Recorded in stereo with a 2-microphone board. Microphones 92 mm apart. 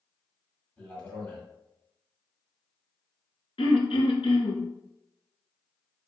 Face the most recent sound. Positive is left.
turn(degrees=85)